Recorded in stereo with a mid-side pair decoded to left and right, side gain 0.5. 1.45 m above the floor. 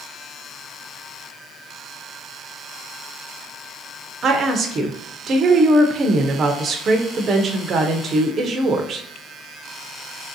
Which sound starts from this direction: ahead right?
A woman speaking, at 4.2 s.